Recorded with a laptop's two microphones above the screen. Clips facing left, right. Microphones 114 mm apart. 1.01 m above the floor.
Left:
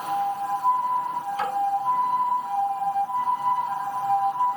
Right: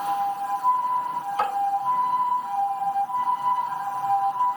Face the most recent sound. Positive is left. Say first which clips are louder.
# right 4 dB
turn(degrees=-55)  # may be behind; listen again after turning